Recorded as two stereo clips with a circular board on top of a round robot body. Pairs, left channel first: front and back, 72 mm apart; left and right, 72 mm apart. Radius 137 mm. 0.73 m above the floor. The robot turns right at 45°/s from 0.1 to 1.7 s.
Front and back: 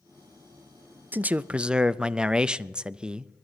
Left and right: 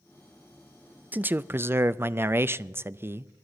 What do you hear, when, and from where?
1.1 s a man speaking: 135° right, 0.5 m; by 3.3 s 110° right, 0.5 m